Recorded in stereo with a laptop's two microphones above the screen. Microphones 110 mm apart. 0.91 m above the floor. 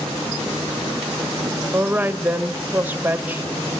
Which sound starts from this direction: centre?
A woman speaking, at 1.7 s.